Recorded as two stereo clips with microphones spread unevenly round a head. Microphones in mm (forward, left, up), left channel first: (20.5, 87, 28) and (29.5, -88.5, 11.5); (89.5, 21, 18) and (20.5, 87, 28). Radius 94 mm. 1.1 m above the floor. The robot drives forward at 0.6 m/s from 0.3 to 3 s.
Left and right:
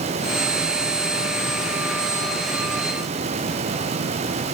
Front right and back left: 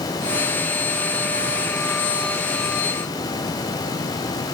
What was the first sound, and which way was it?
Only background noise.